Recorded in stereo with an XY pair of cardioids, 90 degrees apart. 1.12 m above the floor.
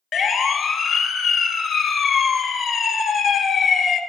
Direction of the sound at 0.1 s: 60° left.